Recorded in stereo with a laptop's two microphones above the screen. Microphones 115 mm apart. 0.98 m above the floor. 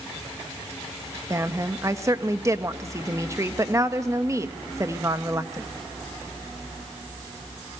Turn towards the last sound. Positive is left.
turn(degrees=-25)  # may be behind; listen again after turning